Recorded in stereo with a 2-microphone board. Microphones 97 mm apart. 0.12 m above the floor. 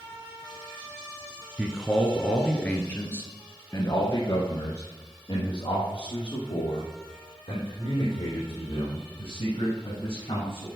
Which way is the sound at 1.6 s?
10° right (ahead or behind).